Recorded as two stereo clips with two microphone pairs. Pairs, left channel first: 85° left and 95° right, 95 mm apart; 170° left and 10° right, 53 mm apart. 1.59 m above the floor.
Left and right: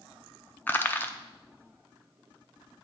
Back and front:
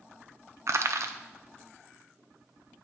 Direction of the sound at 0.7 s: 20° left.